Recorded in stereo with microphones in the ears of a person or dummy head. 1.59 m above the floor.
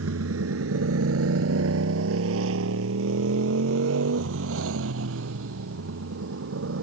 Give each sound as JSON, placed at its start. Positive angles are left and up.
{"t": 0.0, "sound": "a motorcycle", "side_deg": -80}